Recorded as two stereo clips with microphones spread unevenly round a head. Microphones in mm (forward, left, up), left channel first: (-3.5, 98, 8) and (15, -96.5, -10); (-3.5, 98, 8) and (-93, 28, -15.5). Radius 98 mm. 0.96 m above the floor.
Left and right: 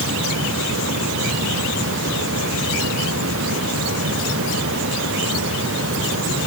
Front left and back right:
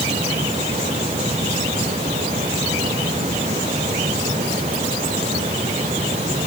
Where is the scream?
No scream in this recording.